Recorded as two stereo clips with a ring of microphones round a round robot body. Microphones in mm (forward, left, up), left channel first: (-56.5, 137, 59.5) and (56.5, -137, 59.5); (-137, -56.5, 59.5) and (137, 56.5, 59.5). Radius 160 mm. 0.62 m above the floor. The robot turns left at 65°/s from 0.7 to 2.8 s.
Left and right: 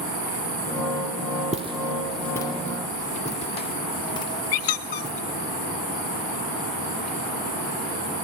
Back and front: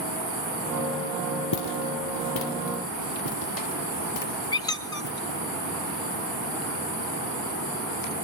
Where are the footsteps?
135° right, 1.1 m; by 5.4 s 165° right, 2.5 m.